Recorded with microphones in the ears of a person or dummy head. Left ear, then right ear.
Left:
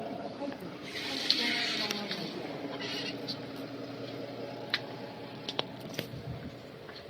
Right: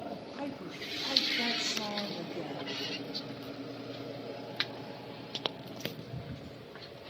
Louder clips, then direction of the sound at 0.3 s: Even; 80° right.